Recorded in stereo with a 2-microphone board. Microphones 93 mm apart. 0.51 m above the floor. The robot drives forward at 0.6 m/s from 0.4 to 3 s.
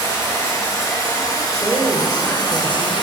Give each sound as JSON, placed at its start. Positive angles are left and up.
{"t": 0.0, "sound": "running water", "side_deg": 35, "distance_m": 3.5}
{"t": 1.6, "sound": "a woman speaking", "side_deg": 25, "distance_m": 1.4}